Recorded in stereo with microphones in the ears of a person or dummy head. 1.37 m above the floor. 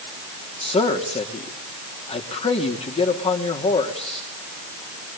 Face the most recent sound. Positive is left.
turn(degrees=30)  # may be behind; listen again after turning